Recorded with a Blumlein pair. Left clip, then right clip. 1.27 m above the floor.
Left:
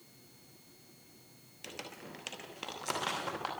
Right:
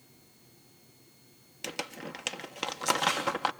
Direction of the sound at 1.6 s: 65° right.